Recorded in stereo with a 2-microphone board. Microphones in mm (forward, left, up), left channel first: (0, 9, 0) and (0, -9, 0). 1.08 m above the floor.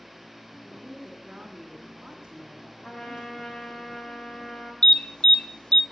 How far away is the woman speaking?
About 1.8 m.